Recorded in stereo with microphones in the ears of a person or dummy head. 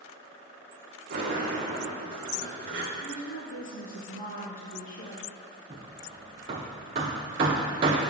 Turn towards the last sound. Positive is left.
turn(degrees=-25)  # may be behind; listen again after turning